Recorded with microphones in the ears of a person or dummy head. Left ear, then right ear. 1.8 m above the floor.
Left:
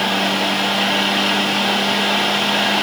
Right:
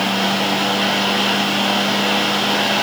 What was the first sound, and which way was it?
A fan, 15° left (ahead or behind).